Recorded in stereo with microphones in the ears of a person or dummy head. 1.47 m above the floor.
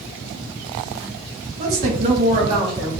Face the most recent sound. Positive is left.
turn(degrees=-30)  # may be behind; listen again after turning